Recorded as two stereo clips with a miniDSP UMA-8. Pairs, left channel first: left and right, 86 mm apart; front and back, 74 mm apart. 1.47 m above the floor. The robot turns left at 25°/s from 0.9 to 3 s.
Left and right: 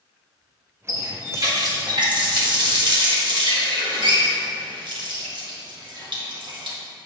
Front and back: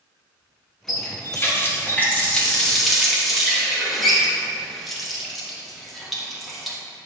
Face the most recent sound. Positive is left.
turn(degrees=-90)